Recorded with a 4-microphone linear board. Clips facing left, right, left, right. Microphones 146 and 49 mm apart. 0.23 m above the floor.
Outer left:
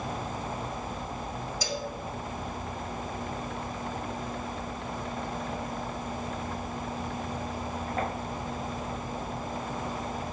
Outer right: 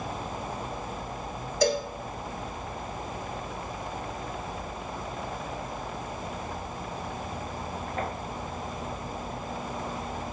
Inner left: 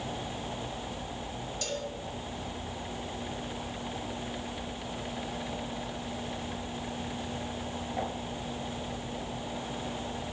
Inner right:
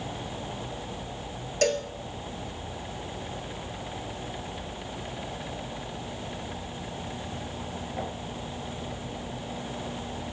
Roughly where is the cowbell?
Right.